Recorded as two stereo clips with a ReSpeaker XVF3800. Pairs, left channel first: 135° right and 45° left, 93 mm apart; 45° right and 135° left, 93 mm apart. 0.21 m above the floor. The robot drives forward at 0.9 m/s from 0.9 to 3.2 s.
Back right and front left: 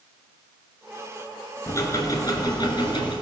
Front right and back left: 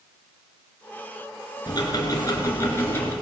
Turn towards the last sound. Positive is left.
turn(degrees=-115)